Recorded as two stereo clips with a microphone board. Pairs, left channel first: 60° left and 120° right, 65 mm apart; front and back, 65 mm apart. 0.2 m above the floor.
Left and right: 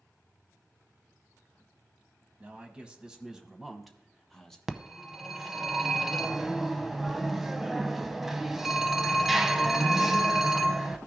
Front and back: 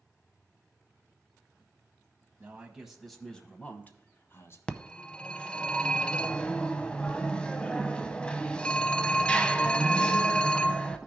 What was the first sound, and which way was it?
A man speaking, 160° right.